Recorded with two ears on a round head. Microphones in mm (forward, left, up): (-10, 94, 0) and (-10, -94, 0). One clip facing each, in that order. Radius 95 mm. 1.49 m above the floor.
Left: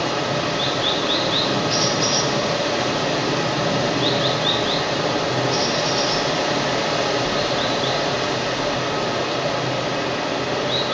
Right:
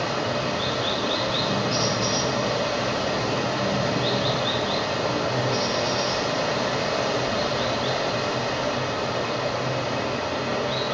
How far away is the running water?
About 0.9 m.